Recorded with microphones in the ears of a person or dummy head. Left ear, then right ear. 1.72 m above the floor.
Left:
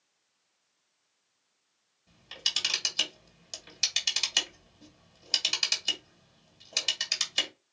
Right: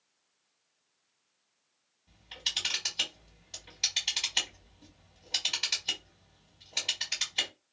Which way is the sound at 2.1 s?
75° left (ahead or behind).